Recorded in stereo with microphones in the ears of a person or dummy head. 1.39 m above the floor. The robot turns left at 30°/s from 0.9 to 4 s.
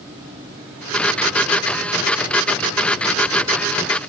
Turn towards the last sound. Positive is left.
No sound to turn to.